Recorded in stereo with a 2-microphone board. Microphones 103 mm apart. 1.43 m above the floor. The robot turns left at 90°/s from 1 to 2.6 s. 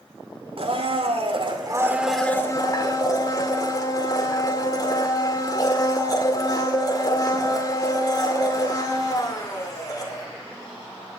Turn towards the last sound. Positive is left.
turn(degrees=140)